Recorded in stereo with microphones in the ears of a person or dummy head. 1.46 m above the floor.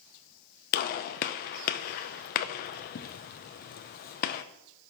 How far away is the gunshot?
About 0.7 m.